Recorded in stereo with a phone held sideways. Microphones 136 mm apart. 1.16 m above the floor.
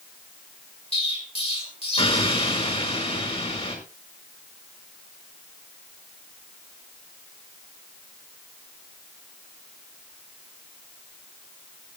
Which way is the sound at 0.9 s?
45° left (ahead or behind).